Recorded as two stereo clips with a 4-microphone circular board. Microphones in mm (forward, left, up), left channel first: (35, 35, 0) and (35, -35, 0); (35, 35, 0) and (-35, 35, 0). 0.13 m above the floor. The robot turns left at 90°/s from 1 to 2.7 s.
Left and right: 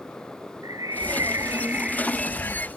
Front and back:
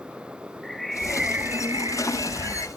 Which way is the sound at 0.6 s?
85° right.